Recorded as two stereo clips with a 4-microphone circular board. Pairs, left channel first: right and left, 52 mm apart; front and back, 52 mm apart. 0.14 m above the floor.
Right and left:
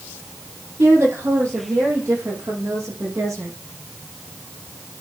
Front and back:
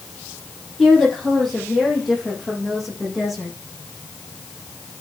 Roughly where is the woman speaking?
Left.